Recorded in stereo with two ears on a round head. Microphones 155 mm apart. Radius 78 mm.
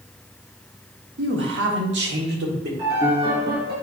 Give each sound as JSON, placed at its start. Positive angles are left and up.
{"t": 1.2, "sound": "a man speaking", "side_deg": -75, "distance_m": 1.1}
{"t": 2.8, "sound": "a piano", "side_deg": -30, "distance_m": 3.0}